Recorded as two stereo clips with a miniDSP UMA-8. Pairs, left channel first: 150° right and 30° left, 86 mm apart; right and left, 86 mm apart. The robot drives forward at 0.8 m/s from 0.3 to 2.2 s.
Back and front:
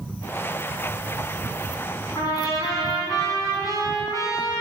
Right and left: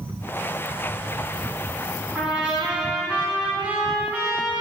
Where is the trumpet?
160° left, 3.5 m.